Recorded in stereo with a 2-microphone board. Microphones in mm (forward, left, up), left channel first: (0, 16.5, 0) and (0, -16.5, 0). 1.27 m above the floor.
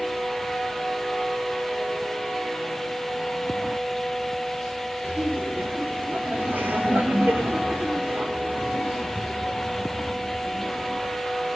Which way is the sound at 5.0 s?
50° right (ahead or behind).